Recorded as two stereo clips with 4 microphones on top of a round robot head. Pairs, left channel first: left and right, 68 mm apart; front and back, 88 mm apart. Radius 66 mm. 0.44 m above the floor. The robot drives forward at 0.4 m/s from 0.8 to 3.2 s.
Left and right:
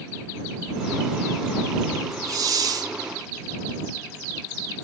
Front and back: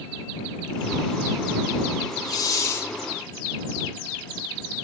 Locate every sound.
2.2 s a hiss: 50° right, 0.9 m; by 2.9 s 65° right, 0.8 m